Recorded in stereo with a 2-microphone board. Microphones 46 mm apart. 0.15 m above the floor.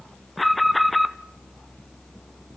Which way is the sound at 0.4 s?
Centre (ahead or behind).